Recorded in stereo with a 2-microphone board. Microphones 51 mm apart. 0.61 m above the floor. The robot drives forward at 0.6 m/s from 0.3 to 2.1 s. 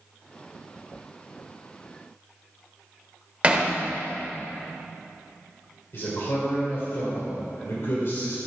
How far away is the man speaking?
About 2 m.